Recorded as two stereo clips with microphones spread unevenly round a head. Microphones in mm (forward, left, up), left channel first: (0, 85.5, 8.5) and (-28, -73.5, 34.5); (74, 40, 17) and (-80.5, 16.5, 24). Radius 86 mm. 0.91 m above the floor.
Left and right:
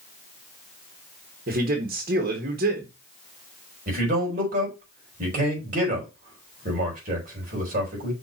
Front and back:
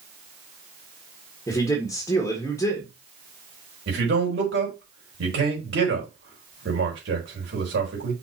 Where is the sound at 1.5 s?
60° right, 1.6 m.